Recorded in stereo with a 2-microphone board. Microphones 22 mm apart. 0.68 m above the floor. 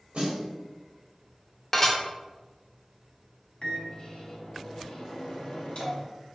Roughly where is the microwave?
Left.